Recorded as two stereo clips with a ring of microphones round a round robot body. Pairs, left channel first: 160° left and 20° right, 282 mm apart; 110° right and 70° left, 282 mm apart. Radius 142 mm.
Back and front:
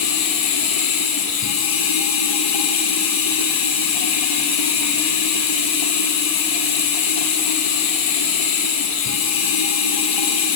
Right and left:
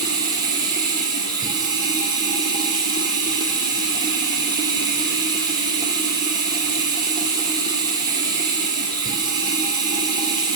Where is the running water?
145° left, 1.9 m.